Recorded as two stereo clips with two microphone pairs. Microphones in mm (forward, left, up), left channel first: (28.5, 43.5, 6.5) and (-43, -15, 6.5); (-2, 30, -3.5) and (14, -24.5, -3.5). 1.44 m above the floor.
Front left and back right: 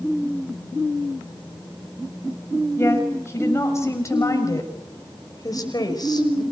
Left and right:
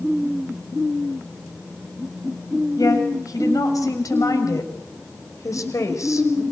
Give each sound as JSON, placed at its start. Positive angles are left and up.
{"t": 2.8, "sound": "a woman speaking", "azimuth_deg": 105, "distance_m": 7.0}